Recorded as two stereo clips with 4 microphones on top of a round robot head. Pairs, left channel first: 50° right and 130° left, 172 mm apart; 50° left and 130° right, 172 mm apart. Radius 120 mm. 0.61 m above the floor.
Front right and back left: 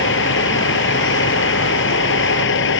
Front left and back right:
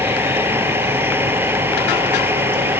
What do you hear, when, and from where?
0.0 s a vehicle: 50° right